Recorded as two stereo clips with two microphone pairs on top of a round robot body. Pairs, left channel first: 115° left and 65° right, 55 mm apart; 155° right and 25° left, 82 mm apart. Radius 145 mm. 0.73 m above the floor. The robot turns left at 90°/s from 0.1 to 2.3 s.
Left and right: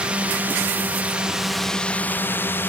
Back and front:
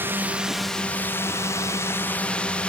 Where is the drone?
20° right; by 2.7 s 140° left.